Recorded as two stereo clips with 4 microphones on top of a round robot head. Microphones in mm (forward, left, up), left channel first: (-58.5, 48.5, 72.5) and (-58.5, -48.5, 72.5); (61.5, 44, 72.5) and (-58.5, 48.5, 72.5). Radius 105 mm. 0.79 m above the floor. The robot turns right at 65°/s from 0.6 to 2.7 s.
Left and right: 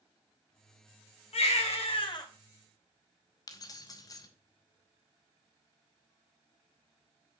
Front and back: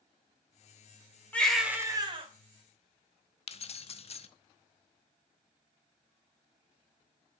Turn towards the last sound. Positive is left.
turn(degrees=35)